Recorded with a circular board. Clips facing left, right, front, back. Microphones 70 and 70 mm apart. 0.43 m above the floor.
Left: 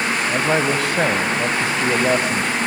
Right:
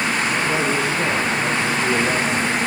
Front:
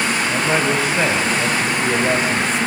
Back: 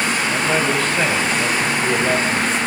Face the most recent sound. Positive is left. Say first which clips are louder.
# left 2 dB, front 1 dB
turn(degrees=85)